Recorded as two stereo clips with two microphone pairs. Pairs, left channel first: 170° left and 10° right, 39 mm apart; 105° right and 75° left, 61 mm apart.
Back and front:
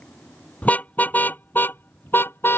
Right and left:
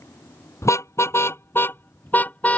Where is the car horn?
140° right; by 2.6 s 170° right.